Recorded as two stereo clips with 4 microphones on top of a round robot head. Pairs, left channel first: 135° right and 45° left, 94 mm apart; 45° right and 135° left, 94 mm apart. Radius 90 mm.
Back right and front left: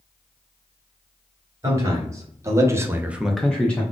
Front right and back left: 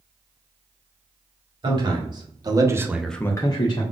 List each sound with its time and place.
1.6 s a man speaking: 100° left, 2.0 m; by 3.8 s 65° right, 1.1 m